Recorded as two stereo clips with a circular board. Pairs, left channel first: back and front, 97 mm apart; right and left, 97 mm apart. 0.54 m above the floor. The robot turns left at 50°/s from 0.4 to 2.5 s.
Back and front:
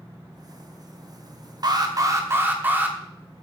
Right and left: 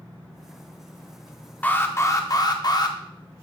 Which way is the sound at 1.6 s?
20° right.